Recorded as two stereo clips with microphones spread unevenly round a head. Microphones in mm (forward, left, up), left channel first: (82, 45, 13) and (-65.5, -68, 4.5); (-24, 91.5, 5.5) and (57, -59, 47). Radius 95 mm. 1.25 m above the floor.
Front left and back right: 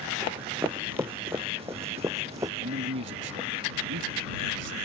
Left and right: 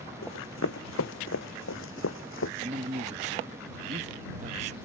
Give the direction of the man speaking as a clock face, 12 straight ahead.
4 o'clock.